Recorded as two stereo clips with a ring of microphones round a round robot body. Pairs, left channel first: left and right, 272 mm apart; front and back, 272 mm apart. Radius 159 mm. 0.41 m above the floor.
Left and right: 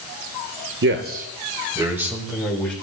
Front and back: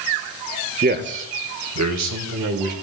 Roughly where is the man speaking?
Behind right.